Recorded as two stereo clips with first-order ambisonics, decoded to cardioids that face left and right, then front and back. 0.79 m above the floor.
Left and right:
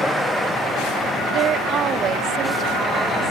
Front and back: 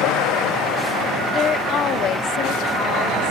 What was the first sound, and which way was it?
A woman speaking, 55° right.